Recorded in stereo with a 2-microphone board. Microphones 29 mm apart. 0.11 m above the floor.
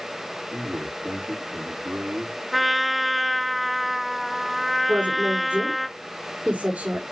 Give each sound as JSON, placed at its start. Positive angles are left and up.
{"t": 0.5, "sound": "a man speaking", "side_deg": -65, "distance_m": 7.5}
{"t": 2.5, "sound": "a trumpet", "side_deg": 0, "distance_m": 0.7}
{"t": 4.9, "sound": "a woman speaking", "side_deg": -75, "distance_m": 5.0}